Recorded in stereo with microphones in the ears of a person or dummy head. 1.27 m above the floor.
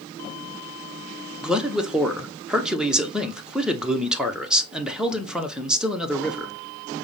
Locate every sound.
1.4 s a man speaking: centre (ahead or behind), 0.7 m